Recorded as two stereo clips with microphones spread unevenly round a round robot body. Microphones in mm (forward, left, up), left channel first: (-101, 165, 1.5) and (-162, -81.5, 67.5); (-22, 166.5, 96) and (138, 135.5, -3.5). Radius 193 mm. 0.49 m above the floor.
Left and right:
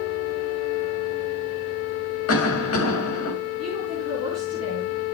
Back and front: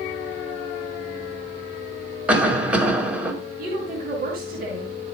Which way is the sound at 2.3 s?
60° left.